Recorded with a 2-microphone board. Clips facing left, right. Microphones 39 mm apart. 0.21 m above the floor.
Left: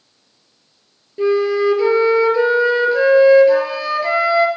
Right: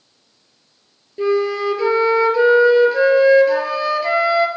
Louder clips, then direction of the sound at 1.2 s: Left 2 dB; 5° left (ahead or behind).